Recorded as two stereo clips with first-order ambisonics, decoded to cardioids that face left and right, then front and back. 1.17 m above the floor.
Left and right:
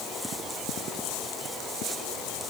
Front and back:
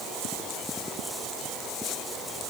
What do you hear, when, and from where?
Only background noise.